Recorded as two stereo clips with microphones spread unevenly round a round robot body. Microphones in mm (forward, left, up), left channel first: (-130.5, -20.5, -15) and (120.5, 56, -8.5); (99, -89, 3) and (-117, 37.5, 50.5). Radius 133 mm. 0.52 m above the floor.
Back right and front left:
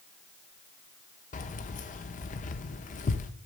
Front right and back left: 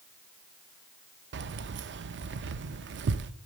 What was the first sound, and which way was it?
Keys jangling, 170° left.